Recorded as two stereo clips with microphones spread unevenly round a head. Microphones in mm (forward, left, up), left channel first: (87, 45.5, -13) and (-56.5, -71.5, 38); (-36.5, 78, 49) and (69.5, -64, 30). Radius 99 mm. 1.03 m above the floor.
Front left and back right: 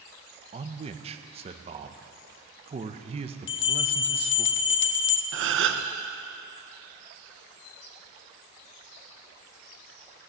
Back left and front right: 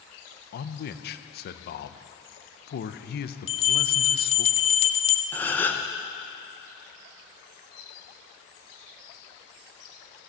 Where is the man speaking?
150° left, 0.8 m.